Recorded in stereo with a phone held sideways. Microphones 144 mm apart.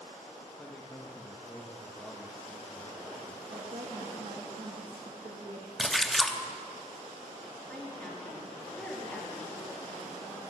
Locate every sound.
0.6 s a man speaking: 10° left (ahead or behind), 1.3 m
3.5 s a woman speaking: 60° right (ahead or behind), 1.7 m
5.8 s a splash: 5° left (ahead or behind), 0.7 m
7.7 s a woman speaking: 10° left (ahead or behind), 3 m